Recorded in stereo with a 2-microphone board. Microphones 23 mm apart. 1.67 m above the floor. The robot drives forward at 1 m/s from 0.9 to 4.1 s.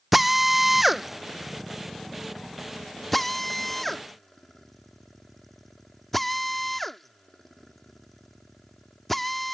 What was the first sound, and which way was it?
A drill, 5° right (ahead or behind).